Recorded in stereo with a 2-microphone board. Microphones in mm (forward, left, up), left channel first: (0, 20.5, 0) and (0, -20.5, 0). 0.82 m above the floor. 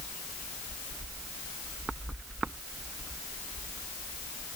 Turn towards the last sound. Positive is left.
No sound to turn to.